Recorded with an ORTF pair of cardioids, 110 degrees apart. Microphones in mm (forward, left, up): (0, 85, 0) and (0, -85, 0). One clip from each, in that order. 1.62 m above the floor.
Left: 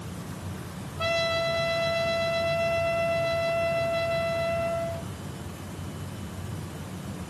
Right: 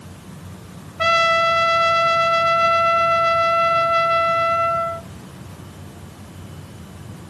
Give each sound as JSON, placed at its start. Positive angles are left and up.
{"t": 1.0, "sound": "a trumpet", "azimuth_deg": -55, "distance_m": 0.6}